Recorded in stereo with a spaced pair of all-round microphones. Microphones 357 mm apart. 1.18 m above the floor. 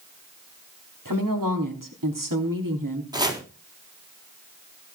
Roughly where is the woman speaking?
Right.